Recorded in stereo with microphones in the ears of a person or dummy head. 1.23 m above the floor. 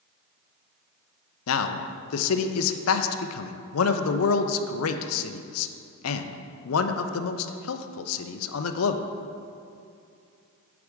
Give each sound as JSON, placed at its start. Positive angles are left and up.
{"t": 1.5, "sound": "a man speaking", "side_deg": 80, "distance_m": 0.7}